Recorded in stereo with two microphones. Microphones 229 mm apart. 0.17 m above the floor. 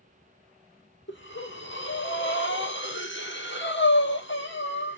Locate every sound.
1.1 s breathing: 55° left (ahead or behind), 0.9 m